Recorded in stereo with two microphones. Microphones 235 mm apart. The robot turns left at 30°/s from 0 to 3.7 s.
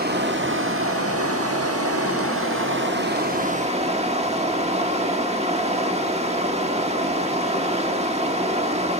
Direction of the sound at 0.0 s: 40° right.